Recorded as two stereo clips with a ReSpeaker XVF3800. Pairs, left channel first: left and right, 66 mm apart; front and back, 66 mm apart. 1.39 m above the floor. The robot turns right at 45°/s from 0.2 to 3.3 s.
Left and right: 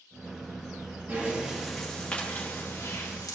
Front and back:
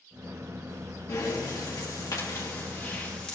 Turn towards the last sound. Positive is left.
turn(degrees=75)